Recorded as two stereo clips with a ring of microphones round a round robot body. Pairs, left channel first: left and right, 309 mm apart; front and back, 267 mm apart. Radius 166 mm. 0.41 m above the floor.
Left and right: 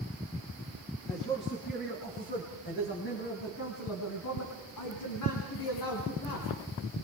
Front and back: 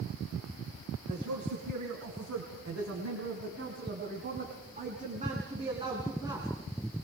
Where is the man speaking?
170° left, 4.5 m; by 6.5 s 100° left, 5 m.